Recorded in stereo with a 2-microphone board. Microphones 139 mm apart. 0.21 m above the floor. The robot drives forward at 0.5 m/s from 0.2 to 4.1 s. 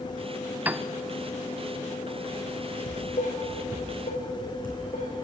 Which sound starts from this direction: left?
Dishes clattering, at 2.9 s.